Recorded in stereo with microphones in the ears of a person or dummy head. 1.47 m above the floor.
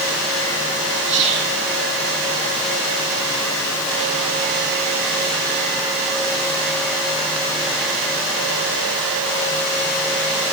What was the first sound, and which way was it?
Whispering, 35° right (ahead or behind).